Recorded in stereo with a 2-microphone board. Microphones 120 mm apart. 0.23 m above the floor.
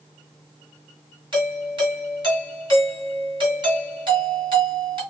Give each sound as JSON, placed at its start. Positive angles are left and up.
{"t": 1.3, "sound": "a doorbell", "side_deg": -40, "distance_m": 2.5}